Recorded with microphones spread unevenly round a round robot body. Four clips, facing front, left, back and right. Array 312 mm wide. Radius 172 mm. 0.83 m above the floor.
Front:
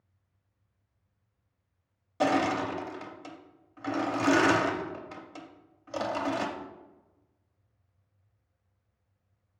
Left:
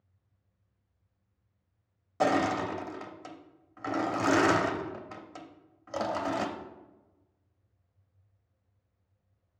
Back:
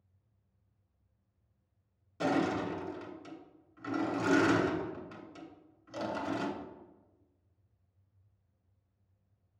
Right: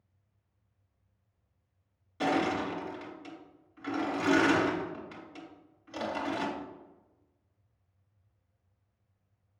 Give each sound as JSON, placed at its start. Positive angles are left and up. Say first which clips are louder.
{"t": 2.2, "sound": "crushing", "louder": "left 2 dB, front 4 dB", "azimuth_deg": 50, "distance_m": 0.6}